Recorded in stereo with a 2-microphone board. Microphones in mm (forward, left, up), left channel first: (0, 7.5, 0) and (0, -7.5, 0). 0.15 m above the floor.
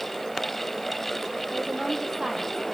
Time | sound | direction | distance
1.5 | a woman speaking | 45° right (ahead or behind) | 4.5 m